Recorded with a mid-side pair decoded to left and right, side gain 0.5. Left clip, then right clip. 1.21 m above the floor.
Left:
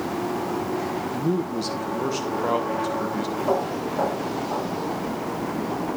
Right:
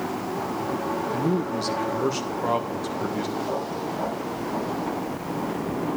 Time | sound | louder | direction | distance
1.1 | a man speaking | even | 5° right | 2 m
3.4 | footsteps | left 4 dB | 60° left | 6.5 m